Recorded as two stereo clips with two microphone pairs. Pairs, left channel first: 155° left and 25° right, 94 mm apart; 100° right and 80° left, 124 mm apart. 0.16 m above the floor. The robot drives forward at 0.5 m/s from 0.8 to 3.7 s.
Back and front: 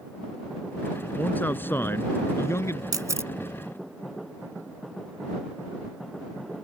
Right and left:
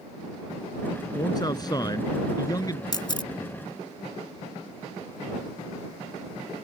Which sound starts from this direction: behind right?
A man speaking, at 1.1 s.